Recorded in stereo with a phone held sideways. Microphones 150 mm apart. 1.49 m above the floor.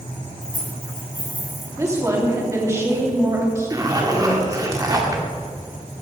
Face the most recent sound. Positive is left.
turn(degrees=-25)  # may be behind; listen again after turning